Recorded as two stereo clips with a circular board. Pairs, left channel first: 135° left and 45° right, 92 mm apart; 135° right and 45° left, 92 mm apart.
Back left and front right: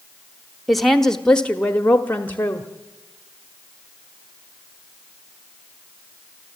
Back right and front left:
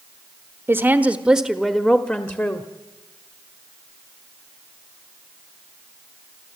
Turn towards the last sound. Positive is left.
turn(degrees=-175)